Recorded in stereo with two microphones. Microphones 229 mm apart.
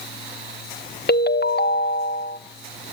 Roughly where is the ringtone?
Left.